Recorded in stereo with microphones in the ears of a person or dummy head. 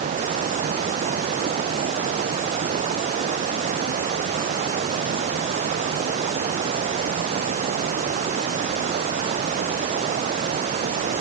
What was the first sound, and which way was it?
Running water, 40° right (ahead or behind).